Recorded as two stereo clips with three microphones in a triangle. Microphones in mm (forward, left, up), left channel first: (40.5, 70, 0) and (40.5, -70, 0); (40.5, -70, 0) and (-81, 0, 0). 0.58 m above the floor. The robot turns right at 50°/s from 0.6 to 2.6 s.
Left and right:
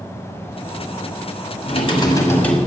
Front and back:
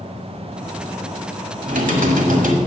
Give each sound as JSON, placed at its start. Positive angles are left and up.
{"t": 1.6, "sound": "typing on a keyboard", "azimuth_deg": 130, "distance_m": 1.1}